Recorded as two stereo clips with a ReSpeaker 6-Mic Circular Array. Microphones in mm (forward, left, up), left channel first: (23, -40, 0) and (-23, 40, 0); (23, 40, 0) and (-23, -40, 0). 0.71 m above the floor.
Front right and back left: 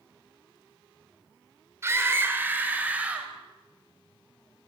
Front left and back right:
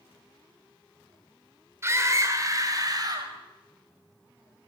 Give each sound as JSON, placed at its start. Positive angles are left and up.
{"t": 1.8, "sound": "a scream", "azimuth_deg": 180, "distance_m": 3.5}